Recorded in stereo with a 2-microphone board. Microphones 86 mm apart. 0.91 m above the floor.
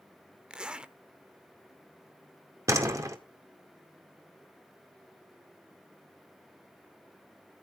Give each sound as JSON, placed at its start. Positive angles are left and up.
{"t": 0.5, "sound": "a zipper", "side_deg": -10, "distance_m": 0.9}
{"t": 2.7, "sound": "a door slam", "side_deg": -40, "distance_m": 1.9}